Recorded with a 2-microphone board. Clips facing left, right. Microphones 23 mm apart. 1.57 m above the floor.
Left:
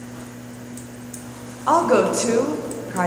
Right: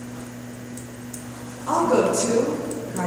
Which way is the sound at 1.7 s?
40° left (ahead or behind).